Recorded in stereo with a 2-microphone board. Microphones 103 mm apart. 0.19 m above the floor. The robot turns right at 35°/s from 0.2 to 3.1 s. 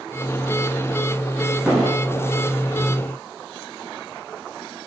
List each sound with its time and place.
1.7 s an explosion: 5° right (ahead or behind), 4.5 m; by 2.4 s 15° left (ahead or behind), 4.5 m